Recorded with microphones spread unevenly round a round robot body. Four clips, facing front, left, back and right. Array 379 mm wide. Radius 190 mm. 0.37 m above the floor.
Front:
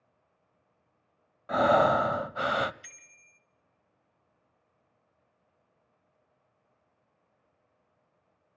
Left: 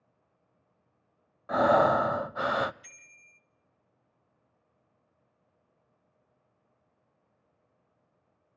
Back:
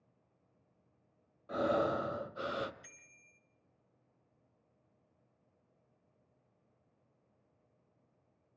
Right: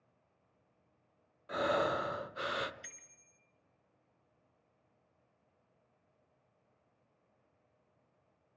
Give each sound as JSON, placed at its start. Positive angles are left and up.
{"t": 1.5, "sound": "breathing", "azimuth_deg": 40, "distance_m": 0.6}
{"t": 2.8, "sound": "a bicycle bell", "azimuth_deg": -45, "distance_m": 3.5}